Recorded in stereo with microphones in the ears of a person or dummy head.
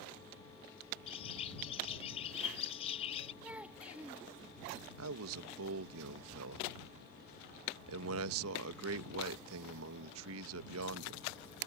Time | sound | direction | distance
1.1 | a bird | 35° left (ahead or behind) | ?
3.4 | a child speaking | 5° right (ahead or behind) | ?
5.0 | a man speaking | 75° right (ahead or behind) | ?